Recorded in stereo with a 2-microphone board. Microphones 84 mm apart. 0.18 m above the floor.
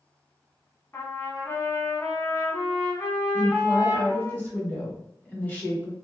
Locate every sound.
0.9 s a trumpet: 30° left (ahead or behind), 0.8 m
3.3 s a woman speaking: 20° left (ahead or behind), 1.3 m